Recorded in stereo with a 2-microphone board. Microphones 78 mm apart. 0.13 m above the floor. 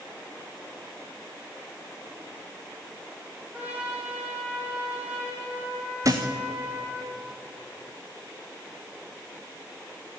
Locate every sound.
3.5 s a trumpet: 20° right (ahead or behind), 5.5 m
6.0 s a thud: 45° right (ahead or behind), 2.5 m